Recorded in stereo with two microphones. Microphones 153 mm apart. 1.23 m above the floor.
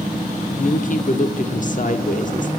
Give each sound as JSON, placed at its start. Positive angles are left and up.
{"t": 0.6, "sound": "a woman speaking", "side_deg": 55, "distance_m": 1.0}